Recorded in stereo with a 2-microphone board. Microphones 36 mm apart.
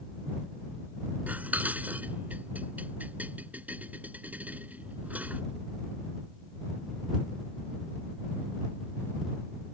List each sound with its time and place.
1.3 s dishes clattering: 50° right (ahead or behind)